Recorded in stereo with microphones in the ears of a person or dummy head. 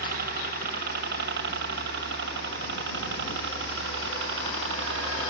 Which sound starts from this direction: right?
A helicopter, at 0.0 s.